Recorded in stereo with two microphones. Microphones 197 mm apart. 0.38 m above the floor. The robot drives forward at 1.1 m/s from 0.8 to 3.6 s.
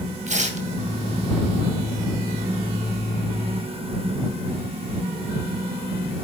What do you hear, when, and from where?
0.3 s tearing paper: 40° right (ahead or behind), 2.5 m